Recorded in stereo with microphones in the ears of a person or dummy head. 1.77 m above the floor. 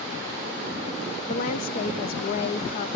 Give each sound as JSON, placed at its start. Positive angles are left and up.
{"t": 1.3, "sound": "a woman speaking", "side_deg": 50, "distance_m": 0.6}